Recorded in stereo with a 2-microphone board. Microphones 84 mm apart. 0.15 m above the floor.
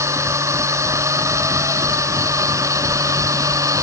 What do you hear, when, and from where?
0.0 s a drone: 35° right (ahead or behind); by 3.8 s 40° right (ahead or behind)